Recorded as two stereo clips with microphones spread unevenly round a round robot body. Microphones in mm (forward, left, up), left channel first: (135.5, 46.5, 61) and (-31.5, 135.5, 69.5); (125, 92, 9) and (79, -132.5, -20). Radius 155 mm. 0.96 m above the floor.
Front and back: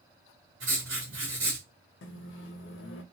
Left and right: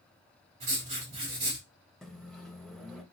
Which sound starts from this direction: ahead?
A microwave, at 2.0 s.